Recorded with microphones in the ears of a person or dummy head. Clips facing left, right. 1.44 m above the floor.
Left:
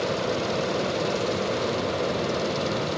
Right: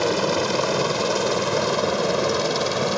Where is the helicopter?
75° right (ahead or behind).